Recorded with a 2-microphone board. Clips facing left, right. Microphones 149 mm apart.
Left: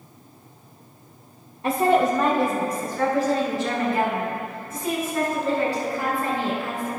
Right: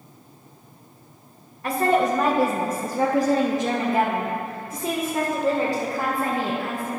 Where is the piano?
No piano in this recording.